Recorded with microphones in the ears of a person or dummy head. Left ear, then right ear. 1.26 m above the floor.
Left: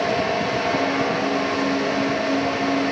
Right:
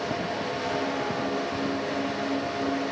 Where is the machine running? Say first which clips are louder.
Left 8 dB; 60° left (ahead or behind), 1.9 m.